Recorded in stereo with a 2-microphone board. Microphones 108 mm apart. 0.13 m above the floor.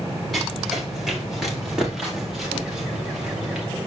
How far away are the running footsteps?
About 5.5 m.